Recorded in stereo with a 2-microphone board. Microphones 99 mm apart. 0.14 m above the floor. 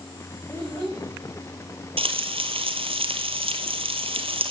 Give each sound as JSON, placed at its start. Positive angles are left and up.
{"t": 0.5, "sound": "a child speaking", "side_deg": 20, "distance_m": 7.0}
{"t": 2.0, "sound": "frying", "side_deg": -70, "distance_m": 1.3}